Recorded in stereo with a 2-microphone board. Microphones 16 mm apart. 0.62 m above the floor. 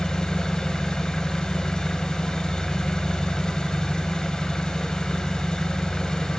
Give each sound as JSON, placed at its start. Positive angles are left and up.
{"t": 0.0, "sound": "an engine running", "side_deg": 55, "distance_m": 0.7}